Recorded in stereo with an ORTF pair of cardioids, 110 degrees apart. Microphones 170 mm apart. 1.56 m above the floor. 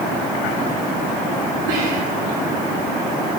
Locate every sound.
1.7 s whispering: 70° right, 4.5 m